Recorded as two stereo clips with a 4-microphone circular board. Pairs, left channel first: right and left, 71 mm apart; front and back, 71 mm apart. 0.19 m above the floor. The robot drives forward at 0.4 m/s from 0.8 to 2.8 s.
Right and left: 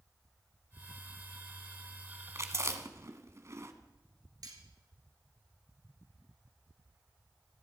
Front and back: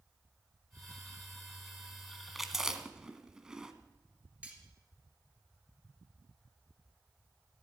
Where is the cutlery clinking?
110° left, 2.5 m.